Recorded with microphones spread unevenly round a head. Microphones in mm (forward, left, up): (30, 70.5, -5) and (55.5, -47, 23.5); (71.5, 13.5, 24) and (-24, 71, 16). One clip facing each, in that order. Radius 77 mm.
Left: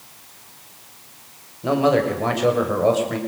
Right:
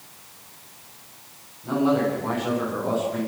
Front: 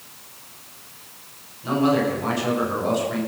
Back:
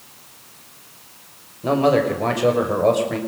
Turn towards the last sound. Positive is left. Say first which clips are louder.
# left 3 dB, back 3 dB
turn(degrees=125)